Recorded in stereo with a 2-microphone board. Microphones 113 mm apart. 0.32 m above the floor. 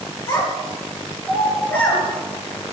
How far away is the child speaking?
About 4.5 m.